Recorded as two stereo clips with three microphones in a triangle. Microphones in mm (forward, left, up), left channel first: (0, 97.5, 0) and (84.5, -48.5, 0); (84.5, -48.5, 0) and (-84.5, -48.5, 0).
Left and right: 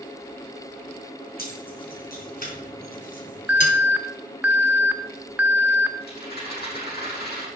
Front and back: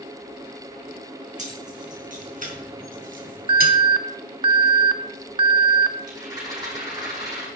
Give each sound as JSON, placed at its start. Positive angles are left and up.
{"t": 1.4, "sound": "keys jangling", "azimuth_deg": 140, "distance_m": 4.0}
{"t": 3.5, "sound": "an alarm", "azimuth_deg": -135, "distance_m": 0.6}
{"t": 6.0, "sound": "a rattle", "azimuth_deg": 110, "distance_m": 6.5}